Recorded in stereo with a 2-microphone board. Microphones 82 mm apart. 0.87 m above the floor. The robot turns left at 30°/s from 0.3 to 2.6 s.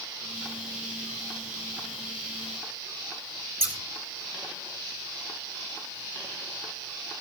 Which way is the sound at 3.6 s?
25° right (ahead or behind).